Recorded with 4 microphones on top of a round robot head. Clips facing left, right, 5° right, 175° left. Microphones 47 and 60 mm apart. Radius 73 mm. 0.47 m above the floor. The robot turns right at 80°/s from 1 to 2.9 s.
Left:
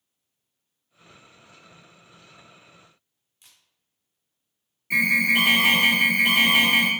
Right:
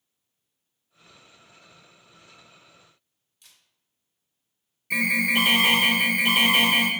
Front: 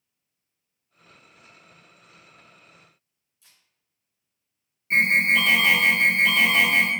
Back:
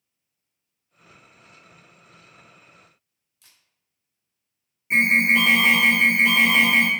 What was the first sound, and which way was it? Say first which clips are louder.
A camera shutter: even, back 1 dB; 150° left.